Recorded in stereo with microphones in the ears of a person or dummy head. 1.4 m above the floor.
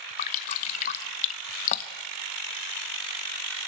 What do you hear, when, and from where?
0.2 s dripping: 45° left (ahead or behind), 0.9 m